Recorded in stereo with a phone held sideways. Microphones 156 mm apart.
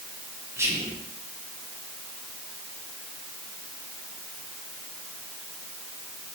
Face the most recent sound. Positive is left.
turn(degrees=-15)  # may be behind; listen again after turning